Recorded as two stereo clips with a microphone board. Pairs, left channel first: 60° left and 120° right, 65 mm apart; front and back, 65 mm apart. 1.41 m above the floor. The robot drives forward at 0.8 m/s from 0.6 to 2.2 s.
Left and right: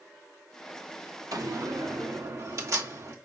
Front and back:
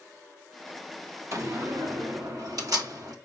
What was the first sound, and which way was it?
A door slam, 140° right.